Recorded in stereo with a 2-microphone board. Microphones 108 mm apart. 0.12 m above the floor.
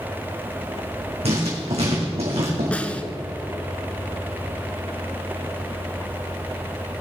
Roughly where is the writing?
Right.